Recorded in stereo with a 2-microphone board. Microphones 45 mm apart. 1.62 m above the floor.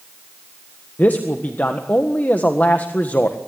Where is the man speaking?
40° left (ahead or behind), 1.6 m.